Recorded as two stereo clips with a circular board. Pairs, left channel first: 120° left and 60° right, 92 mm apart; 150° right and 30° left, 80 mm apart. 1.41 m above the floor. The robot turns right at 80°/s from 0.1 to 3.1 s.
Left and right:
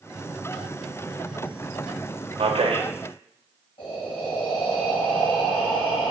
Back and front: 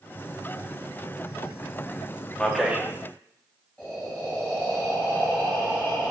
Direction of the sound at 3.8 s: 130° left.